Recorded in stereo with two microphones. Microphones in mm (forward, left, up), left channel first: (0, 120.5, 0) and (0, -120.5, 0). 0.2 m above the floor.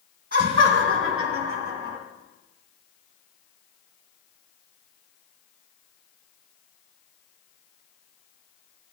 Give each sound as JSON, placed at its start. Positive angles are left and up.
{"t": 0.3, "sound": "laughter", "side_deg": -45, "distance_m": 1.7}